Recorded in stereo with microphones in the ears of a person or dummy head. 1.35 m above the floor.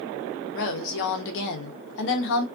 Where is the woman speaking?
65° left (ahead or behind), 0.8 m.